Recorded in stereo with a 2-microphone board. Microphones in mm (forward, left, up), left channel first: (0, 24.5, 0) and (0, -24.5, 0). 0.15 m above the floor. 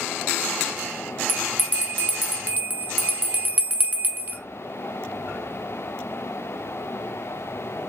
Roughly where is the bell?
Right.